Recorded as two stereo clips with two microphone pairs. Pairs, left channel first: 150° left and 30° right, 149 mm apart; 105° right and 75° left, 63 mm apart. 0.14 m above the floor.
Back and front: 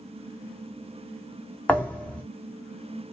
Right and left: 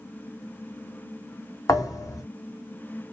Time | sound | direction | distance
1.7 | a thud | 130° right | 0.6 m